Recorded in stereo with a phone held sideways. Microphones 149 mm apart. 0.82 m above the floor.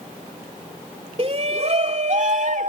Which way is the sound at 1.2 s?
40° right (ahead or behind).